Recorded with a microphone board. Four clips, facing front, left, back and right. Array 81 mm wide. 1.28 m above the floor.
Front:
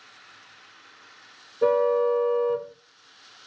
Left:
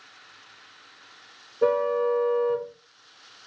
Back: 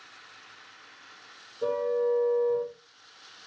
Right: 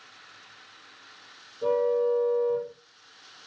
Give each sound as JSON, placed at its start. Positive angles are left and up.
{"t": 1.6, "sound": "a car horn", "azimuth_deg": 55, "distance_m": 5.5}